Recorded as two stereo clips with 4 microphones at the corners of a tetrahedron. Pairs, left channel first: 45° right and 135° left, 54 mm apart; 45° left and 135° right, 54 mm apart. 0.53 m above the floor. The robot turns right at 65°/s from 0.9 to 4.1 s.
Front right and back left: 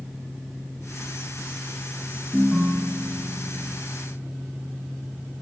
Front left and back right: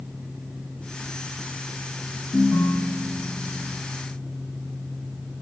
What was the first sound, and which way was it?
A ringtone, 35° left.